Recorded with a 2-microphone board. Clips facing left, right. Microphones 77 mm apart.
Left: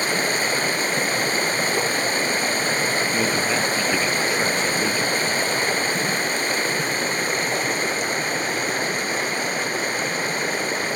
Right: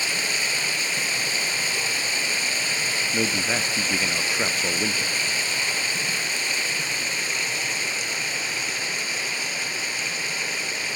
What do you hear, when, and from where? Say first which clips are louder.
0.0 s running water: left 6 dB; 45° left (ahead or behind), 1.0 m
3.1 s a man speaking: left 4 dB; centre (ahead or behind), 0.5 m